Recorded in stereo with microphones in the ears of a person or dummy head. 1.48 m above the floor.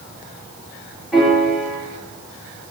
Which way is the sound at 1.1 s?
5° right (ahead or behind).